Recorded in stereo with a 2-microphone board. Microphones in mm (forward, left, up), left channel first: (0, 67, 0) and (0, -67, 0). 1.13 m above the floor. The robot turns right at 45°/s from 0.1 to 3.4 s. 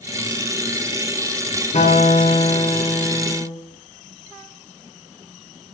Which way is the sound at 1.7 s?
110° left.